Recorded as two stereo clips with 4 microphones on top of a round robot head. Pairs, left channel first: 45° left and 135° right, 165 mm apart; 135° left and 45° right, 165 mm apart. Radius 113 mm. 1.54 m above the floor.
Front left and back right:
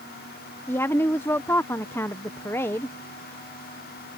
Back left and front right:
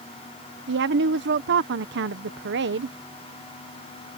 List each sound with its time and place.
0.7 s a woman speaking: 30° right